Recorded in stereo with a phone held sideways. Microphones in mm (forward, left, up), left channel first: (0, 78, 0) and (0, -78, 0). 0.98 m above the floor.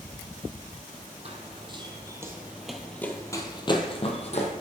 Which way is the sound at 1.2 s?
45° right (ahead or behind).